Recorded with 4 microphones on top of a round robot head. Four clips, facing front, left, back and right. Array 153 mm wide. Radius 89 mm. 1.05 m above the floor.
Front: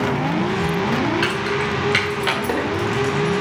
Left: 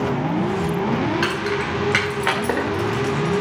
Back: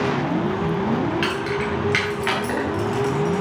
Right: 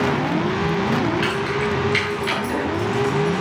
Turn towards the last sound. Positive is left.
turn(degrees=85)